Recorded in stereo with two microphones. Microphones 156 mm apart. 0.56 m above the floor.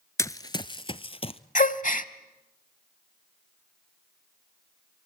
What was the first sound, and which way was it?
Running footsteps, 20° left (ahead or behind).